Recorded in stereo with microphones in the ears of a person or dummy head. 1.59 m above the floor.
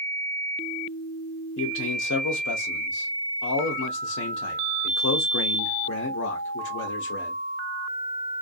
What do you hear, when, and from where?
1.6 s a man speaking: 75° left (ahead or behind), 0.6 m